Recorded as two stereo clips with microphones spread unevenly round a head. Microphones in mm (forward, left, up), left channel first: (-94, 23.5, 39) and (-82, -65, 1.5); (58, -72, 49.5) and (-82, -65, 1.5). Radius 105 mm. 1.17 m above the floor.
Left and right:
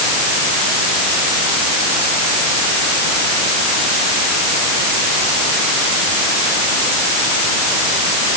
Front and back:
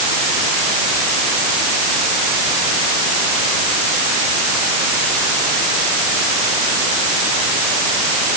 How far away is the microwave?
No microwave in this recording.